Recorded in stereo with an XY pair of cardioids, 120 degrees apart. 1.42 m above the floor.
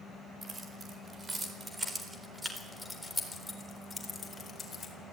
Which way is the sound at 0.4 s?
35° right.